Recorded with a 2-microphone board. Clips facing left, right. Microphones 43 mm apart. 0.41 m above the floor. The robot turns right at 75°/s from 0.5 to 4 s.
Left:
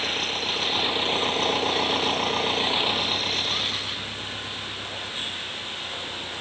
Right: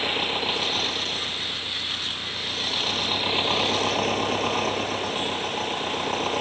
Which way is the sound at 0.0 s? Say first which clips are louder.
Right 2 dB; 15° right.